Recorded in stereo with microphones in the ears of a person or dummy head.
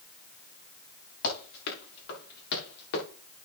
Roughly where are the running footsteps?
Left.